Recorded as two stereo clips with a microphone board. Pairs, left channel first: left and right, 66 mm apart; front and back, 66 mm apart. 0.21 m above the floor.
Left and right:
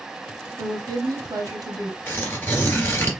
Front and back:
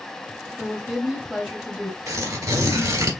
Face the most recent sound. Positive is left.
turn(degrees=145)